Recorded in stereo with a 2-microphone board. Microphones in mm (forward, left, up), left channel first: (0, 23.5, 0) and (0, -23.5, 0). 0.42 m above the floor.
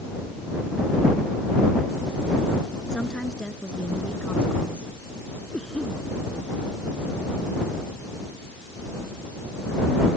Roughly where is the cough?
Centre.